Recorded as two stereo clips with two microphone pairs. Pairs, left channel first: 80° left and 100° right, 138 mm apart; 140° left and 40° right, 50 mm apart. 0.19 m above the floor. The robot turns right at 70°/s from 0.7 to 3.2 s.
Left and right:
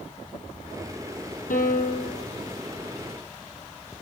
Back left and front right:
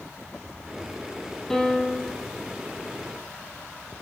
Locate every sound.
1.5 s a piano: 60° left, 2.5 m; by 2.3 s 110° left, 2.5 m